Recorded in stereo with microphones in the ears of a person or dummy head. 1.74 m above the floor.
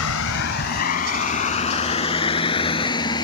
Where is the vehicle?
75° left (ahead or behind); by 3.2 s 25° left (ahead or behind).